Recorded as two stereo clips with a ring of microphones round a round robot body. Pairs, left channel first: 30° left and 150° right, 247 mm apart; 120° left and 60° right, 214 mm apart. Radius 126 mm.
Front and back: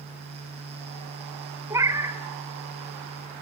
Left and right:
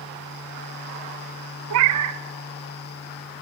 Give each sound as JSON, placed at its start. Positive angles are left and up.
{"t": 1.7, "sound": "a cat meowing", "azimuth_deg": -70, "distance_m": 1.0}